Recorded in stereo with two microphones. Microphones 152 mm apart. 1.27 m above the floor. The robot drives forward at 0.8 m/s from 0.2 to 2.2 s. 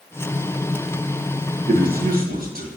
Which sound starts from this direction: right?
A man speaking, at 1.7 s.